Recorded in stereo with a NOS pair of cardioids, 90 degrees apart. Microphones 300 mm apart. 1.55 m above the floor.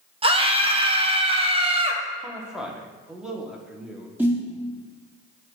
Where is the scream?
20° right, 0.8 m.